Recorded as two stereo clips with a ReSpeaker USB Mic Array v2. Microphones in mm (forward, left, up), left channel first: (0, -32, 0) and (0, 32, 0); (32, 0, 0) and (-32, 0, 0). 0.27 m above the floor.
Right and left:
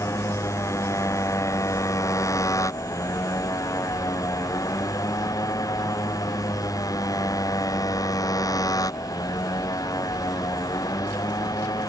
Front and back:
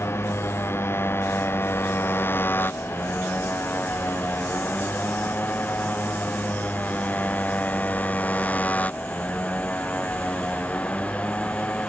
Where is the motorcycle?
50° right; by 11.9 s 70° right.